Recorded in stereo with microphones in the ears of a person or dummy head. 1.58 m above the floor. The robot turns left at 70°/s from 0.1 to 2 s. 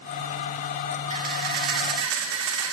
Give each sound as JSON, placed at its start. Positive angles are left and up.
{"t": 1.1, "sound": "a camera shutter", "azimuth_deg": -35, "distance_m": 2.5}